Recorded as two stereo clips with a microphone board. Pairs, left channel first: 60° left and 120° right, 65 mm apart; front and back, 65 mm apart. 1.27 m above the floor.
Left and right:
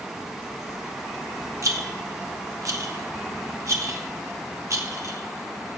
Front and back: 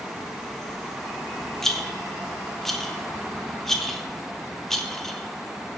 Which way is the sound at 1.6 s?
85° right.